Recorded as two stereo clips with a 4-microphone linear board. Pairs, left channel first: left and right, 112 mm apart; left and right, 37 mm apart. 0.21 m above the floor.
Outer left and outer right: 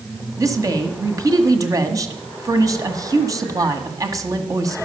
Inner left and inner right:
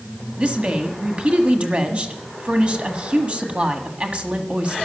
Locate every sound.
0.4 s a woman speaking: 35° right (ahead or behind), 1.6 m